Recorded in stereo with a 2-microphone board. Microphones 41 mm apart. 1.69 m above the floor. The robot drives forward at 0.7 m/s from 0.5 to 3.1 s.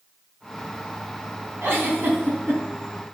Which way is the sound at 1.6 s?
60° right (ahead or behind).